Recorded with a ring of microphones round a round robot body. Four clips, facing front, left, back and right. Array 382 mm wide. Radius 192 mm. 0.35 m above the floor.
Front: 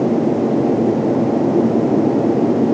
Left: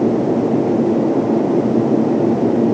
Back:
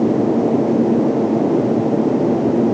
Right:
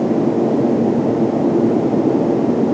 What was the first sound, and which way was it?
Only background noise.